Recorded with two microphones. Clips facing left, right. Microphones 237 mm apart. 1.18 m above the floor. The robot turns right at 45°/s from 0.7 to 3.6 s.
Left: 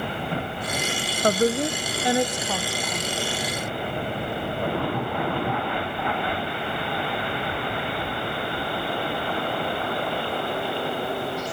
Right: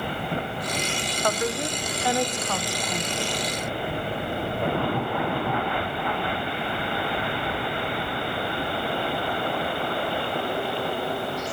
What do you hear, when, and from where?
1.2 s a woman speaking: 40° left (ahead or behind), 0.7 m; by 3.3 s 20° right (ahead or behind), 0.7 m